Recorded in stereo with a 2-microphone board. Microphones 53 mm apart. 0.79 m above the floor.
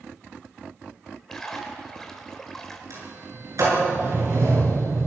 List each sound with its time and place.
1.3 s a splash: 10° left (ahead or behind), 3 m
2.9 s a sliding door: 80° right, 10 m